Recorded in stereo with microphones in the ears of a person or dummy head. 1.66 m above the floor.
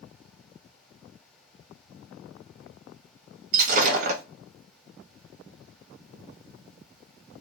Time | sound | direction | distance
3.5 | breaking glass | 50° right (ahead or behind) | 1.6 m